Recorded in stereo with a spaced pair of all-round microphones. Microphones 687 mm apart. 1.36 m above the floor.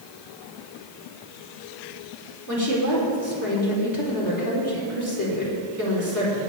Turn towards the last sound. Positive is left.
turn(degrees=25)  # may be behind; listen again after turning